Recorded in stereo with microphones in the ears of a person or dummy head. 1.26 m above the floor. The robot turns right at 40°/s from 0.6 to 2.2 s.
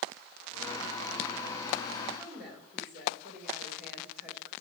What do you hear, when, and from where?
2.1 s a woman speaking: 5° right (ahead or behind), 3 m; by 4.5 s 10° right (ahead or behind), 3 m